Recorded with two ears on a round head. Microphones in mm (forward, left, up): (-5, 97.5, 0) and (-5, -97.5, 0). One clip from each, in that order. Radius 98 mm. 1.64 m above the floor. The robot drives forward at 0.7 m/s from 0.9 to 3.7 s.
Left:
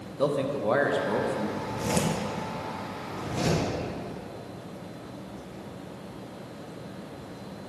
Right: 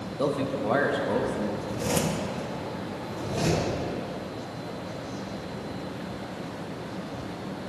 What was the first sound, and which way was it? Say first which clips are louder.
A man speaking: left 1 dB; 5° left (ahead or behind).